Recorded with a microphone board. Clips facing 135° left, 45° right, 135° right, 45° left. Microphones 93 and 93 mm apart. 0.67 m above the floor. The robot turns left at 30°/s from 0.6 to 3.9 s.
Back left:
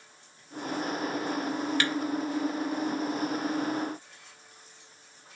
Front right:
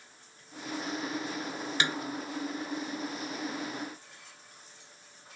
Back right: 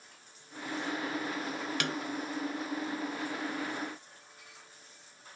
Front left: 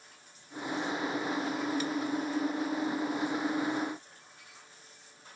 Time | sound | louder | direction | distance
1.8 | a snare drum | front right 3 dB, front left 2 dB | 115° right | ?